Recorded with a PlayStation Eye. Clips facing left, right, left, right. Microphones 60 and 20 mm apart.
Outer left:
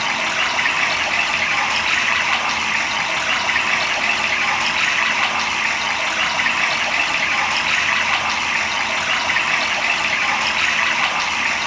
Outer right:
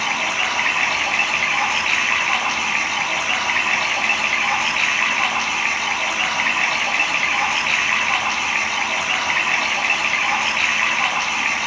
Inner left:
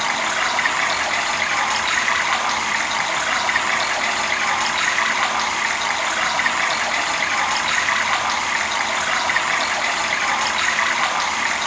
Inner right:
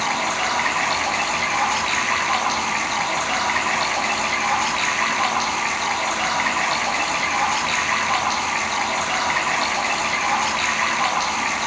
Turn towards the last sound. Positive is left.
turn(degrees=75)  # may be behind; listen again after turning